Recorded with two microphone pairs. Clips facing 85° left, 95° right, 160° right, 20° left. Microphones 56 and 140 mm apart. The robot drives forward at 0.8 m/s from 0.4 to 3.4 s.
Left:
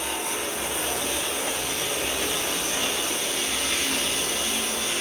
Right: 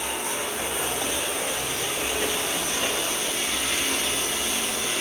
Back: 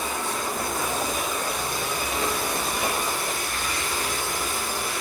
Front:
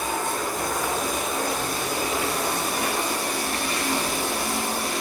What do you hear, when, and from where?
0.0 s running water: straight ahead, 7 m; by 5.0 s 5° right, 4.5 m